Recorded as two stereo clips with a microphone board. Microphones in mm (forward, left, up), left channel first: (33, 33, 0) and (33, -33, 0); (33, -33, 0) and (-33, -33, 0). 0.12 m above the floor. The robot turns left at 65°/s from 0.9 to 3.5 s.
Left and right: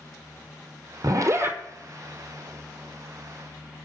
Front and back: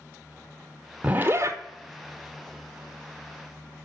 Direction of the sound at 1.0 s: 110° right.